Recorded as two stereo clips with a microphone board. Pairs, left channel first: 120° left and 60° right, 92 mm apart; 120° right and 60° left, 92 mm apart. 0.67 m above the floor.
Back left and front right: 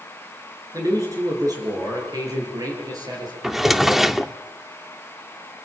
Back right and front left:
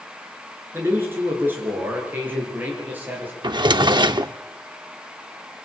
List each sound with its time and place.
0.7 s a man speaking: 5° right, 8 m; by 3.3 s 10° right, 11.5 m
3.4 s a drawer: 25° left, 0.7 m